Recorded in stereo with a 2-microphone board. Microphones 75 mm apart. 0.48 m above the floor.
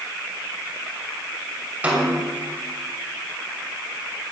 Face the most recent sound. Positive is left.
turn(degrees=-20)  # may be behind; listen again after turning